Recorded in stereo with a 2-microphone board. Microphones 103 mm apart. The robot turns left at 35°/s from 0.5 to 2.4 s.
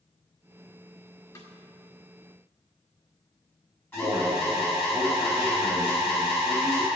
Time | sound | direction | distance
1.4 | a snare drum | 35° left (ahead or behind) | 1.6 m
3.9 | an alarm | 20° left (ahead or behind) | 5 m